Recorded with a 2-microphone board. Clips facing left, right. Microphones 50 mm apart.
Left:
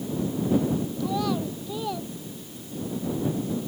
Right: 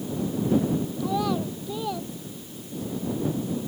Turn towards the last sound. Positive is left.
turn(degrees=5)  # may be behind; listen again after turning